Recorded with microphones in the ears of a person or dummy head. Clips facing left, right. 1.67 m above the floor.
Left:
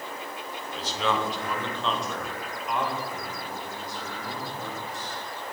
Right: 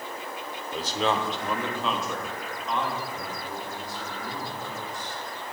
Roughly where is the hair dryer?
I don't hear a hair dryer.